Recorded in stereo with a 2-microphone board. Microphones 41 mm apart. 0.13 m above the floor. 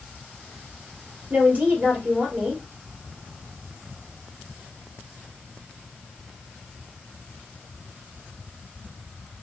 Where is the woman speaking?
40° right (ahead or behind), 2.5 m.